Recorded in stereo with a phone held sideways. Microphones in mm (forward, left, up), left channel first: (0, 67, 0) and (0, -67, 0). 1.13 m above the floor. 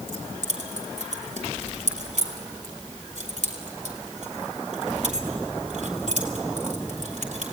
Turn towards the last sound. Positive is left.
turn(degrees=-65)  # may be behind; listen again after turning